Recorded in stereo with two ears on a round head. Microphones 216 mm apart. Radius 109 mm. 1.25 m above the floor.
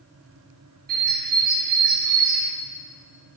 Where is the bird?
40° right (ahead or behind), 1.0 m.